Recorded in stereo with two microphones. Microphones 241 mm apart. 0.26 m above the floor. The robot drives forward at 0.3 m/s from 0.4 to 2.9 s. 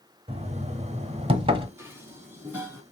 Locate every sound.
0.3 s knocking: 25° right (ahead or behind), 0.9 m; by 1.7 s 20° right (ahead or behind), 1.0 m
1.8 s dishes clattering: 10° right (ahead or behind), 1.6 m